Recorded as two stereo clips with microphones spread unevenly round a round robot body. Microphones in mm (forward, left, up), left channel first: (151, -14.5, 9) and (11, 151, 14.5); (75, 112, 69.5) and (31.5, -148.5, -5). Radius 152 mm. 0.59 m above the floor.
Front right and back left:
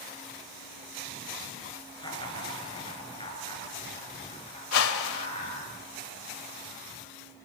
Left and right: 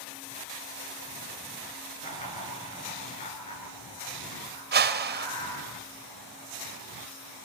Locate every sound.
2.0 s laughter: 15° left, 8.5 m; by 5.7 s 10° left, 10.5 m
4.7 s a whoosh: 50° right, 1.5 m